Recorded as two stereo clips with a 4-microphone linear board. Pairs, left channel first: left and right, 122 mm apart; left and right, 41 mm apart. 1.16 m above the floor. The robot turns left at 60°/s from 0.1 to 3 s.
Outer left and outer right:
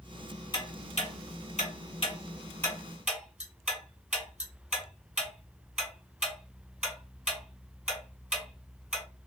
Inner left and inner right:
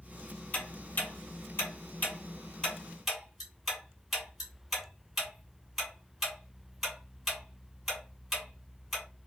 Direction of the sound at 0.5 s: 40° left (ahead or behind).